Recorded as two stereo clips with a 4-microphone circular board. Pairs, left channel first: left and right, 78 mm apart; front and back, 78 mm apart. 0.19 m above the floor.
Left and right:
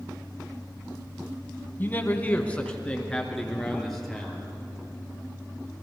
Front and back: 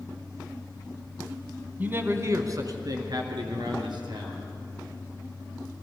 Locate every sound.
1.8 s a man speaking: 130° left, 1.1 m; by 4.5 s straight behind, 3.5 m